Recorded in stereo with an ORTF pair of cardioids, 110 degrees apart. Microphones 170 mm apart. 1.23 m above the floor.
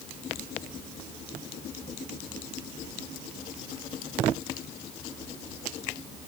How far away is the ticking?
No ticking in this recording.